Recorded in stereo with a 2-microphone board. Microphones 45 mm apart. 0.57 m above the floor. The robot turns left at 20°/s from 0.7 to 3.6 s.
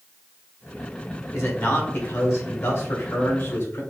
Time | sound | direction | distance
1.3 | a man speaking | 115° left | 1.7 m